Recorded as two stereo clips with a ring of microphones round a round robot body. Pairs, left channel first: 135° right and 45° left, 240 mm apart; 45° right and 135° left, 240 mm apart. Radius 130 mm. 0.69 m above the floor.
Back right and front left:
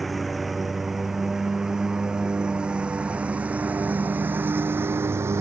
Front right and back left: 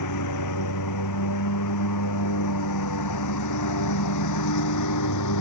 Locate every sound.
0.0 s a lawn mower: 45° right; by 5.4 s 35° right